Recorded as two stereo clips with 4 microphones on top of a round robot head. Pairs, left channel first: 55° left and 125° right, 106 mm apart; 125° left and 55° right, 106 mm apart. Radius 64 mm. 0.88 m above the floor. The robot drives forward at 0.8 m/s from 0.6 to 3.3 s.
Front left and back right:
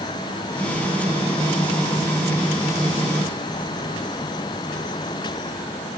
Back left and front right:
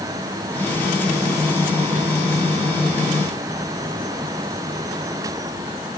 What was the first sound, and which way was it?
Only background noise.